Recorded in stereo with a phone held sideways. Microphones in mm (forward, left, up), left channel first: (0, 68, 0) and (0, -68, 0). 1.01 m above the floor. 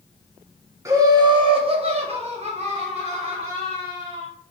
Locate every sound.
0.8 s laughter: 20° right (ahead or behind), 0.7 m; by 4.3 s 45° right (ahead or behind), 1.9 m